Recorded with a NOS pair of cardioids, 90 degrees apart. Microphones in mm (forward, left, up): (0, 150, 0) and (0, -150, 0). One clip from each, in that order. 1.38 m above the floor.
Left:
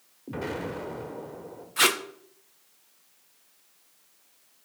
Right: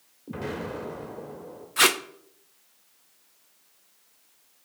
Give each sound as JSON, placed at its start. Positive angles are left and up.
{"t": 0.3, "sound": "an explosion", "azimuth_deg": 15, "distance_m": 2.0}
{"t": 1.8, "sound": "tape being pulled", "azimuth_deg": -10, "distance_m": 0.7}